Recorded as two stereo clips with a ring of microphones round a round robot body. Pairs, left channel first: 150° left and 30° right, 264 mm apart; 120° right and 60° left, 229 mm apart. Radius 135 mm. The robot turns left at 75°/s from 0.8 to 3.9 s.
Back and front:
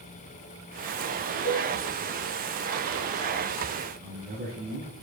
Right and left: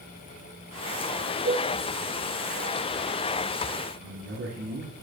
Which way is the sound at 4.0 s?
25° left.